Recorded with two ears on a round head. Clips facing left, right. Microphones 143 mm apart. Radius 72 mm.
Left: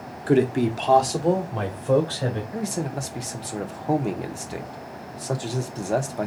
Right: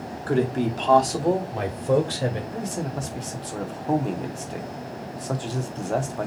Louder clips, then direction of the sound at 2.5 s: Left 1 dB; 10° left (ahead or behind).